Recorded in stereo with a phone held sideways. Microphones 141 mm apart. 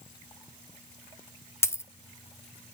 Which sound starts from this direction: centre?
A dropped coin, at 1.6 s.